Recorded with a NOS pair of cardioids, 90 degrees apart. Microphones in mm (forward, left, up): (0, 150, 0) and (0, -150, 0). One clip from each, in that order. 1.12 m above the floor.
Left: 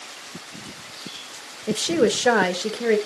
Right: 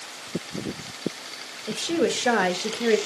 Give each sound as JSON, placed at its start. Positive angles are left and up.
{"t": 1.7, "sound": "a woman speaking", "azimuth_deg": 35, "distance_m": 1.1}